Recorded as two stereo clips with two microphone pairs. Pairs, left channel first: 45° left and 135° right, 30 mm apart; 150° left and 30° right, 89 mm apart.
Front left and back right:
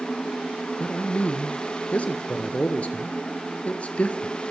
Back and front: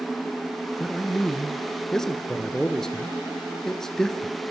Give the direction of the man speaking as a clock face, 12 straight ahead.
10 o'clock.